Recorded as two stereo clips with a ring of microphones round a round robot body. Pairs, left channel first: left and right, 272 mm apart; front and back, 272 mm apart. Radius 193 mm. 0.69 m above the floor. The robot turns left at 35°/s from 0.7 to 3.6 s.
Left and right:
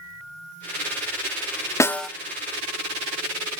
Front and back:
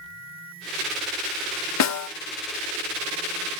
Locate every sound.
1.8 s a snare drum: 10° left, 1.0 m; by 2.1 s straight ahead, 1.0 m